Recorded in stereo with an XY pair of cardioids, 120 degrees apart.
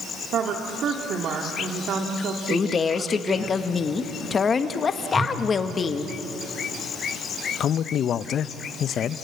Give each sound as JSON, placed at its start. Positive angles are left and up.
{"t": 0.3, "sound": "a woman speaking", "azimuth_deg": -55, "distance_m": 1.9}
{"t": 2.5, "sound": "a woman speaking", "azimuth_deg": 35, "distance_m": 1.3}
{"t": 5.1, "sound": "a whoosh", "azimuth_deg": -10, "distance_m": 3.5}
{"t": 7.6, "sound": "a man speaking", "azimuth_deg": 55, "distance_m": 0.6}